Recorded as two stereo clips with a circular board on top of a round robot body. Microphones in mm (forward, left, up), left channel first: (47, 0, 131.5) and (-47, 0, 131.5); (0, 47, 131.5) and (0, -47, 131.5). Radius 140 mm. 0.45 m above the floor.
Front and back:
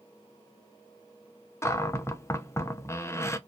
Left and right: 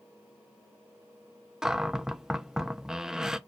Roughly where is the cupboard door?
Ahead.